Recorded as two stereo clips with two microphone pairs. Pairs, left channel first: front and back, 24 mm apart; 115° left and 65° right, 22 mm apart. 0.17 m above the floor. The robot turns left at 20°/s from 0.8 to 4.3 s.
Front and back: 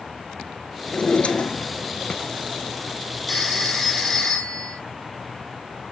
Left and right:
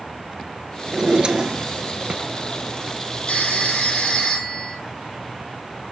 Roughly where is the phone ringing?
Left.